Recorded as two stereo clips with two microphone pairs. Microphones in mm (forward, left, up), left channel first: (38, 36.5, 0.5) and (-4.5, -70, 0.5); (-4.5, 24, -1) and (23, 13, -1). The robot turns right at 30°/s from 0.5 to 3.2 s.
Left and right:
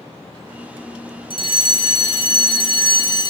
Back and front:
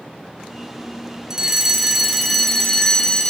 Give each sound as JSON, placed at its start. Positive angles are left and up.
{"t": 1.3, "sound": "a fire alarm", "azimuth_deg": 45, "distance_m": 2.0}